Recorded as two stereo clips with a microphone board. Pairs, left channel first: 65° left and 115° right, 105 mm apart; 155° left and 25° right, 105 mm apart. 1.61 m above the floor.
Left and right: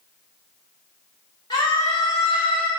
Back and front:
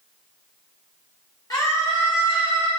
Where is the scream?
110° left, 1.1 m; by 2.7 s 5° left, 0.8 m.